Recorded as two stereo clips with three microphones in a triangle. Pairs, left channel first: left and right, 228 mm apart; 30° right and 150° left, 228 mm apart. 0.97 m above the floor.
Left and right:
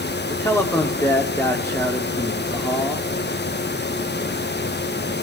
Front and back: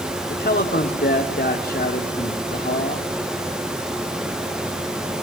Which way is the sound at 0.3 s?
10° left.